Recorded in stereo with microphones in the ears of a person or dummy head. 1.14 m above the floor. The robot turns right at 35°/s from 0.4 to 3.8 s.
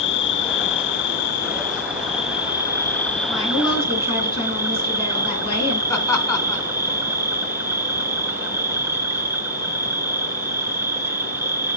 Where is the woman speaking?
15° left (ahead or behind), 9.5 m; by 5.8 s 30° left (ahead or behind), 9.5 m.